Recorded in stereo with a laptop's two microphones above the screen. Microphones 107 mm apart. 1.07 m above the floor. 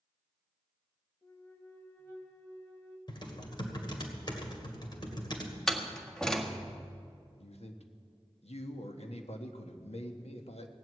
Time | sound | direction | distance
1.2 | a flute | 30° left (ahead or behind) | 2 m
3.1 | typing on a keyboard | 45° left (ahead or behind) | 2.5 m
5.7 | a door slam | 5° left (ahead or behind) | 1.5 m
7.4 | a man speaking | 80° left | 1.3 m